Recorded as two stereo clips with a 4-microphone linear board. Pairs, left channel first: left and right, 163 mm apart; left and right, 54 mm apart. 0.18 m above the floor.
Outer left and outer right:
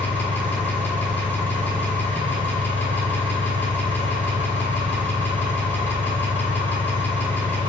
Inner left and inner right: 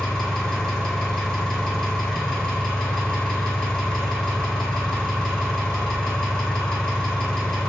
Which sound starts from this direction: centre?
An engine running, at 0.0 s.